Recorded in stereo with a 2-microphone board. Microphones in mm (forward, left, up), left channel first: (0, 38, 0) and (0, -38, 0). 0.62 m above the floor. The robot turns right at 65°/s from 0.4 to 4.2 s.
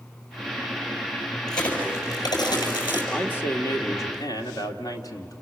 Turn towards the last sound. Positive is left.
turn(degrees=90)